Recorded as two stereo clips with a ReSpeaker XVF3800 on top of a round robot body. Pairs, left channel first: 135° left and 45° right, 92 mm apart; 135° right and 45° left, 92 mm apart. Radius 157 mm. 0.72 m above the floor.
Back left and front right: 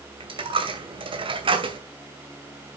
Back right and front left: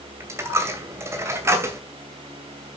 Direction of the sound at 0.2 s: 15° right.